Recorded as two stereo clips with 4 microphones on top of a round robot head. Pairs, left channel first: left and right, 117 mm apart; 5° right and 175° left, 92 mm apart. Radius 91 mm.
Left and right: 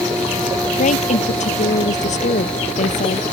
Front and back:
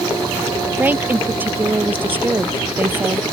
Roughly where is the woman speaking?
Left.